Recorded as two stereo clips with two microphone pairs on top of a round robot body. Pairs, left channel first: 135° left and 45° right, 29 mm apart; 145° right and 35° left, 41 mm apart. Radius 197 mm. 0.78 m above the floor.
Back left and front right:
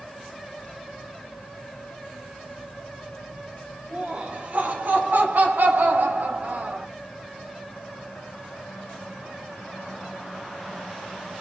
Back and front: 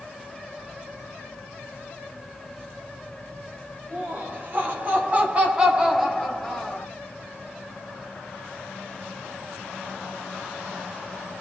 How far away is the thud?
No thud in this recording.